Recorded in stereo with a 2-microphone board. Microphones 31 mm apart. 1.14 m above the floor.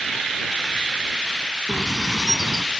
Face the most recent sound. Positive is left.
turn(degrees=-10)  # may be behind; listen again after turning